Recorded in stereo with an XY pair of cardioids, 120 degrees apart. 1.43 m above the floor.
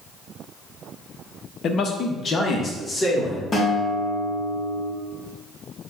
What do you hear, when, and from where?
1.6 s a man speaking: 55° left, 0.6 m; by 3.4 s 25° left, 1.7 m
3.5 s a guitar: 35° left, 1.1 m